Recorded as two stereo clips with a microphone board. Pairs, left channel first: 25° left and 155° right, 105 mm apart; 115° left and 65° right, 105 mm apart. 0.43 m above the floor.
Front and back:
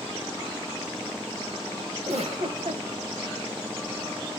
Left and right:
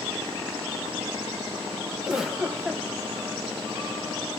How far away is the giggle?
About 0.6 m.